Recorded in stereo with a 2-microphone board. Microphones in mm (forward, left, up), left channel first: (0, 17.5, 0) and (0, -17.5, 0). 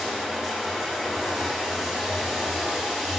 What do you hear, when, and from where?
0.0 s running water: 5° right (ahead or behind), 1.3 m